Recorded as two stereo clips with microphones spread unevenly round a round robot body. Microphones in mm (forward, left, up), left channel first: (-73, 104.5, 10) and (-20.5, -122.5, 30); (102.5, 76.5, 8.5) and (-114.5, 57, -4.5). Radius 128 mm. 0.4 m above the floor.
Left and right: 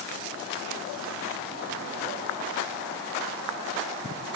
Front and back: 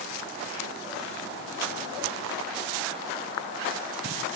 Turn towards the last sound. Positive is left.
No sound to turn to.